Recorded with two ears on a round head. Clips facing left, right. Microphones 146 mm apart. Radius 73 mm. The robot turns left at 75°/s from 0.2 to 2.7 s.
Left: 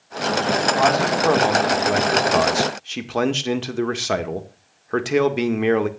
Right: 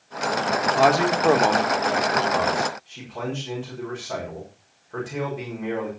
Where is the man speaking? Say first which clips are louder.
Right 2 dB; 130° right, 1.8 m; by 5.9 s 85° left, 1.8 m.